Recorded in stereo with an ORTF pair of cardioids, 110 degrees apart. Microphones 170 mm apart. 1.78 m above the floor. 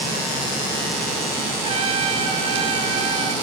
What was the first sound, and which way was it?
A trumpet, 35° right.